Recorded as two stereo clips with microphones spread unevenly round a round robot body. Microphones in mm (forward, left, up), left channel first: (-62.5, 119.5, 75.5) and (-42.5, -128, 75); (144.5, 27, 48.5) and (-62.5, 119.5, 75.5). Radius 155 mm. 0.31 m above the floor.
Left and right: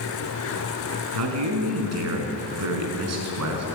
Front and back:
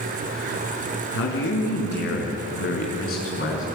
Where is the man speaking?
60° right, 5.5 m; by 3.6 s 80° right, 6 m.